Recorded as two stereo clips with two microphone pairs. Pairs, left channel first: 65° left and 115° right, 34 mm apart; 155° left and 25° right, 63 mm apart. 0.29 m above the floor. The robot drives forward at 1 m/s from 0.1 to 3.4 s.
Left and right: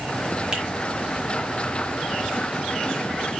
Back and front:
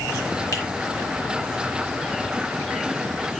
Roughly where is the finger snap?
Behind.